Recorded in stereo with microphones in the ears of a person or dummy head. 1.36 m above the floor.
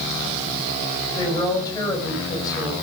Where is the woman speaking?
15° left (ahead or behind), 7.5 m.